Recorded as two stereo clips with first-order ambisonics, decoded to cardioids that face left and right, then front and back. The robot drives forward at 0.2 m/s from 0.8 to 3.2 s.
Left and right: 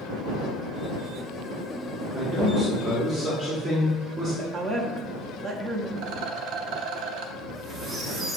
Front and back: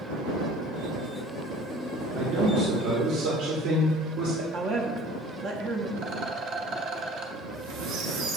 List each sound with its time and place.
2.1 s a man speaking: 160° right, 0.7 m; by 4.4 s 165° right, 0.8 m
4.5 s a woman speaking: 170° right, 0.6 m
6.0 s a rattle: 120° right, 0.6 m
7.4 s a squeak: 165° right, 1.2 m